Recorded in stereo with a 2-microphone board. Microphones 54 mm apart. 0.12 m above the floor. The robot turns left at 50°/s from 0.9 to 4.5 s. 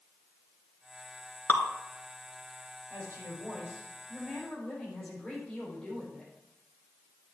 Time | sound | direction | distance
1.5 | dripping | 40° left (ahead or behind) | 1.1 m
2.9 | a woman speaking | 115° right | 5 m